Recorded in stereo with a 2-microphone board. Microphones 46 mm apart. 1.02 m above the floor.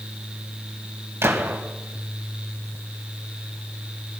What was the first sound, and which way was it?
A gunshot, 75° right (ahead or behind).